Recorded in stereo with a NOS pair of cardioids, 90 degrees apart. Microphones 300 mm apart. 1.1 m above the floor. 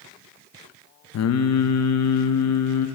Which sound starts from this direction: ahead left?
Singing, at 1.1 s.